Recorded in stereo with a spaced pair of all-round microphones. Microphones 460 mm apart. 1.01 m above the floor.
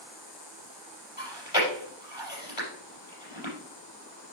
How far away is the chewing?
About 4.5 m.